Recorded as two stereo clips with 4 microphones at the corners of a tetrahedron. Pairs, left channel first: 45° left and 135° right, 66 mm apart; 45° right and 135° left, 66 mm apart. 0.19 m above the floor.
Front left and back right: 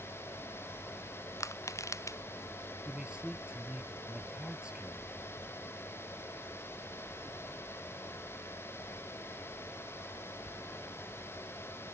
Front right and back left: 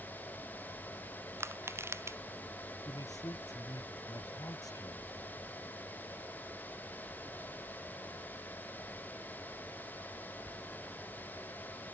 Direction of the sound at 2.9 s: 60° right.